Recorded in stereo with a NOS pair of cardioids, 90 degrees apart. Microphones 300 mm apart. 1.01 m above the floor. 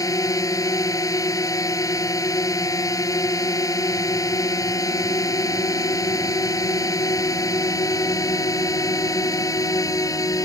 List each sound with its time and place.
0.0 s a drone: 10° left